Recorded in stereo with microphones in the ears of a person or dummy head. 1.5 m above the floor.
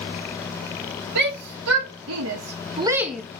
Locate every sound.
1.1 s a shout: 70° right (ahead or behind), 1.9 m; by 3.2 s centre (ahead or behind), 1.0 m